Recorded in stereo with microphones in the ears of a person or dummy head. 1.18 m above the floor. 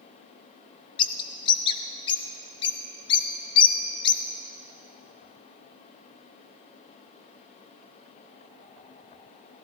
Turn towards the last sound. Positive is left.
turn(degrees=25)  # may be behind; listen again after turning